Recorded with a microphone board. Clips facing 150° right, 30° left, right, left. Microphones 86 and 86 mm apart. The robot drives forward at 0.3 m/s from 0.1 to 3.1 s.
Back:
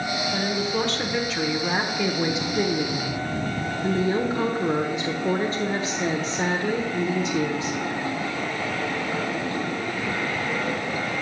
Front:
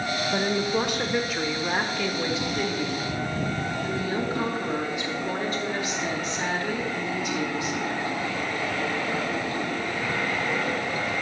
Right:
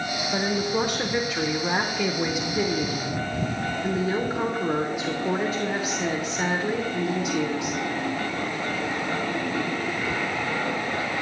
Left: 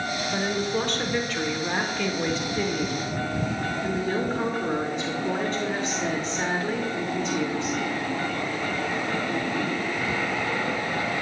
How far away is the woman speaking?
About 0.8 m.